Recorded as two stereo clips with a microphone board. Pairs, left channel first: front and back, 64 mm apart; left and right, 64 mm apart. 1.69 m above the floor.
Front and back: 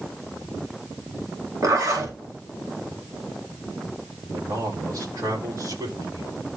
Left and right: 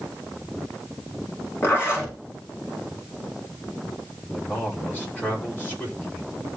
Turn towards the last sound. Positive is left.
turn(degrees=155)